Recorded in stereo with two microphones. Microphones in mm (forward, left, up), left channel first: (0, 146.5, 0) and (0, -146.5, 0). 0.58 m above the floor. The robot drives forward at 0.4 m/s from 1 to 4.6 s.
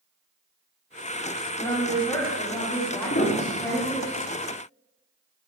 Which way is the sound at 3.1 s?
45° left (ahead or behind).